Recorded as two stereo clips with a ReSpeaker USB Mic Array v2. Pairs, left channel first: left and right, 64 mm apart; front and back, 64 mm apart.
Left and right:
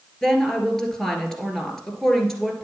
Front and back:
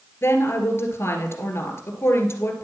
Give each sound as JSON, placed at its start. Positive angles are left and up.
{"t": 0.2, "sound": "a woman speaking", "azimuth_deg": 10, "distance_m": 1.8}